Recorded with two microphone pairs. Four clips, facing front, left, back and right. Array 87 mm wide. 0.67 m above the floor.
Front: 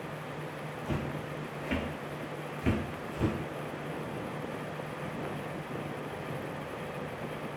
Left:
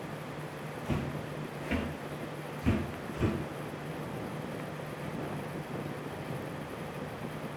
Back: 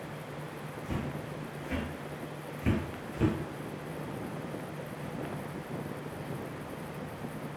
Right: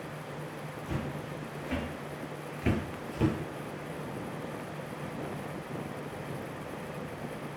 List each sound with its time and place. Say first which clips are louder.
0.8 s footsteps: left 2 dB, front 1 dB; 45° left, 1.0 m; by 3.4 s 100° right, 1.0 m